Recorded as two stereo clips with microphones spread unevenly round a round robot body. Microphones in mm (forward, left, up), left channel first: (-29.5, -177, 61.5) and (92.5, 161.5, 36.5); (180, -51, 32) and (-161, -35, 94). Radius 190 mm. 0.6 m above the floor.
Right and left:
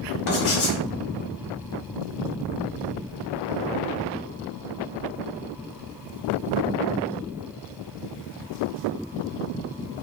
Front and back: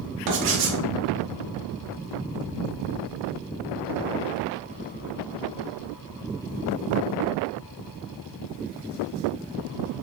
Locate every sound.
0.3 s writing: 165° right, 1.1 m